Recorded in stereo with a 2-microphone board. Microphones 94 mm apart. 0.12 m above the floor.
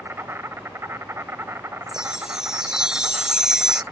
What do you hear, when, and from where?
0.0 s an insect: 25° right (ahead or behind)
1.9 s a chime: 5° right (ahead or behind)